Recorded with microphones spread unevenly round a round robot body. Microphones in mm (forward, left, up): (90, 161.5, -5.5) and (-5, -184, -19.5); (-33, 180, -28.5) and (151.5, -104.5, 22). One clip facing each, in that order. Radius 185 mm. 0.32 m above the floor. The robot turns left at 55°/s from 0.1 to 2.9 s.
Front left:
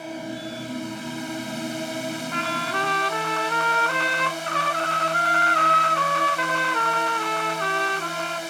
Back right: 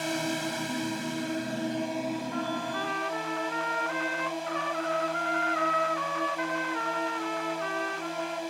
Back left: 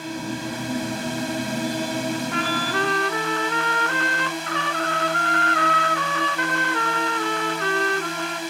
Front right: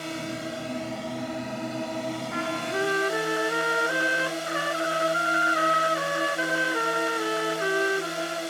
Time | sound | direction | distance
0.0 | a drone | 150° right | ?
2.3 | a trumpet | 85° left | ?